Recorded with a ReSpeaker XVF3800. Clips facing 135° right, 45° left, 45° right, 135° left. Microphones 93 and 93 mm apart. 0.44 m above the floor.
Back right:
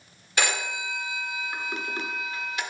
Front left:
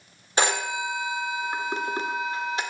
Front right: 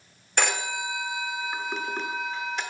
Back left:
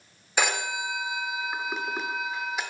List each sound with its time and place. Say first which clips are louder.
0.4 s a phone ringing: front left 4 dB, even; 55° left, 0.6 m